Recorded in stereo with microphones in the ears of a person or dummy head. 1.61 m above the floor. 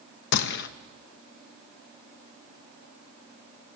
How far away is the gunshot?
About 0.6 m.